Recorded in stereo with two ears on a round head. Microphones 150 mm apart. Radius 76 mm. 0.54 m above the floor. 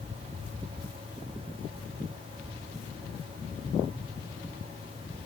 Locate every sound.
Only background noise.